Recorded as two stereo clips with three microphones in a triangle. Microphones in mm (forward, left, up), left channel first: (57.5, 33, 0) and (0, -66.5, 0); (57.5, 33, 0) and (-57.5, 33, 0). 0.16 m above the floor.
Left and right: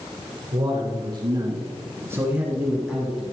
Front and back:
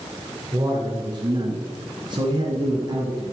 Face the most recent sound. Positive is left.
turn(degrees=145)